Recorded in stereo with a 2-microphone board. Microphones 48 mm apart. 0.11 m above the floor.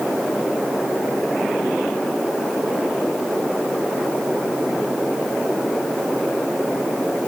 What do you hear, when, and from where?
Only background noise.